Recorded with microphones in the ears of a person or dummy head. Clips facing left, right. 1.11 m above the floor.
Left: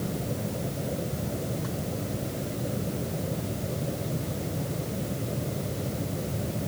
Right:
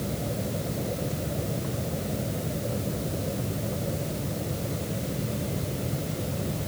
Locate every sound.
Only background noise.